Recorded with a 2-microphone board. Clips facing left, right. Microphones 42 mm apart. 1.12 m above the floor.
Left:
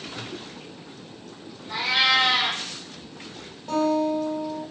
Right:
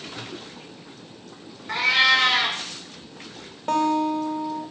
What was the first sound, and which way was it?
A cat meowing, 60° right (ahead or behind).